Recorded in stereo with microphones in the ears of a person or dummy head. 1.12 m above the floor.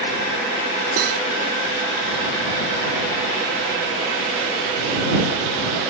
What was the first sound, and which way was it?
Cutlery clinking, 65° right (ahead or behind).